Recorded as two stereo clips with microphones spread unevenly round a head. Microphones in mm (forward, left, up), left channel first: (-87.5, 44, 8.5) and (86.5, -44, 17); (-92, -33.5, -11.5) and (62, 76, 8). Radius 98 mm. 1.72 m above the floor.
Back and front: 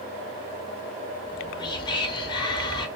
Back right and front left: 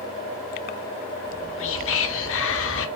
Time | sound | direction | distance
1.2 | whispering | 140° right | 0.8 m